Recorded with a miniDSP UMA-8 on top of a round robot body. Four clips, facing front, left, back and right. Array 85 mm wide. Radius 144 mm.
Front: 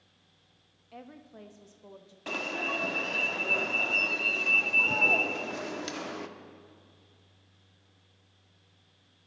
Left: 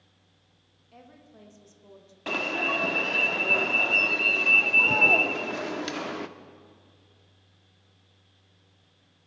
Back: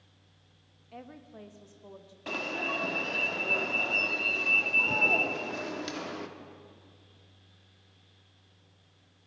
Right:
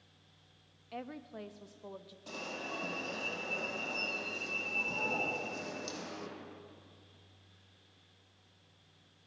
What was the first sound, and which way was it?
A woman speaking, 90° right.